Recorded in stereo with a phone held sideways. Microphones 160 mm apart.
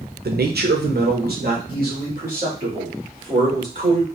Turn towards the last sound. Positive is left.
turn(degrees=-60)  # may be behind; listen again after turning